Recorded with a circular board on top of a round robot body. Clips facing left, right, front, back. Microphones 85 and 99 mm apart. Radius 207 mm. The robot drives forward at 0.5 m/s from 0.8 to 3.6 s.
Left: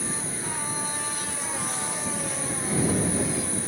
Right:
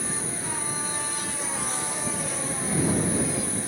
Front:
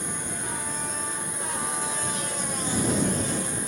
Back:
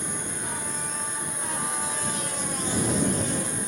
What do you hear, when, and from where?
0.0 s an insect: 35° right, 2 m; by 3.7 s 95° right, 1.6 m